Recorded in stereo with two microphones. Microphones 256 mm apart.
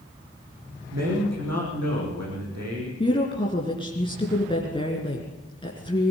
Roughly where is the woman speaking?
Centre.